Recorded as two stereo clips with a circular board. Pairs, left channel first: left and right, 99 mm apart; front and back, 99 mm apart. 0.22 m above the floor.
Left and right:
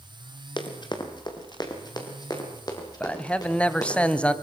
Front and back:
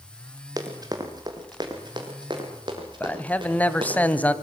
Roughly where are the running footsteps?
Behind left.